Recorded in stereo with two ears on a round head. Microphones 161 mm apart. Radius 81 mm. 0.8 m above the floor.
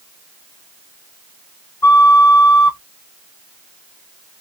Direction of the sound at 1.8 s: 15° left (ahead or behind).